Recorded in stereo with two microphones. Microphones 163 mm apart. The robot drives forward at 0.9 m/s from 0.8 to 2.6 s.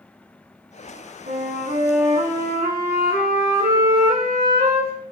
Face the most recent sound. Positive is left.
turn(degrees=-65)  # may be behind; listen again after turning